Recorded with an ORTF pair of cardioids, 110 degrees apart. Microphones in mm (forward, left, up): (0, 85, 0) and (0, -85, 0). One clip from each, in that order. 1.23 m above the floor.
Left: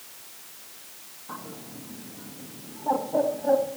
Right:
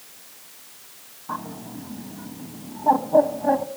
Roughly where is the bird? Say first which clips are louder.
Right 8 dB; ahead right.